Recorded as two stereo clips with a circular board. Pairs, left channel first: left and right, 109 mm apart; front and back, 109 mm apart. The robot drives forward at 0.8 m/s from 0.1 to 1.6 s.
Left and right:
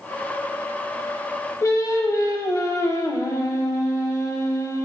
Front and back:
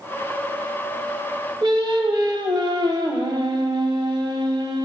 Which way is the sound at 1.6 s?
145° left.